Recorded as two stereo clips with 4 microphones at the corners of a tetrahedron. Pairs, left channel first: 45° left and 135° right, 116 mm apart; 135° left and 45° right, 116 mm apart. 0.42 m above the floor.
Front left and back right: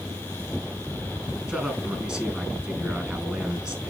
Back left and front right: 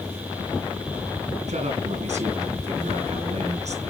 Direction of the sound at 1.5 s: 50° right.